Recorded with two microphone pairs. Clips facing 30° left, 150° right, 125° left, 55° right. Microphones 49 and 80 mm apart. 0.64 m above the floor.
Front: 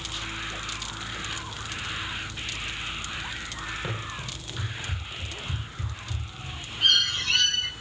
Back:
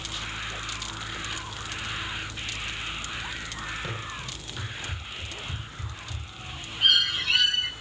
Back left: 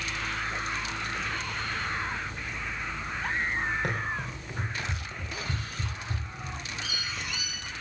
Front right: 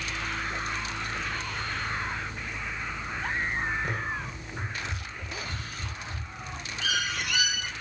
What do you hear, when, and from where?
3.8 s running footsteps: 105° left, 9.5 m; by 6.5 s 100° left, 8.5 m
6.8 s a bird: 70° right, 1.0 m